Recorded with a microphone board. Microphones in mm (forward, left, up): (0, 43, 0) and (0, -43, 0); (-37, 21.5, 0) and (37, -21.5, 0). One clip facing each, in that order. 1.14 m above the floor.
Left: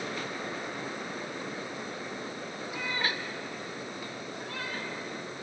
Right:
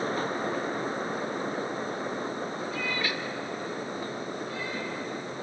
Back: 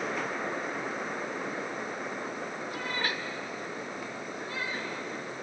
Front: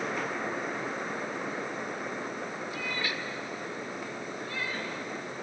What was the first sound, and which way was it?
A cat meowing, 165° left.